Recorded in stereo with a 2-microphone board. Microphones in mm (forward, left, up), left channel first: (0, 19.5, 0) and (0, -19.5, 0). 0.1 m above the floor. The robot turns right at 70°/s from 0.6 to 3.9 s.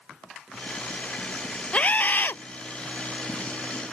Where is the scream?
45° left; by 2.4 s 90° left.